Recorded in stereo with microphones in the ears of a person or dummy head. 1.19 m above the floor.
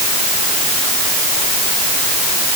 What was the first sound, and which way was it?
Only background noise.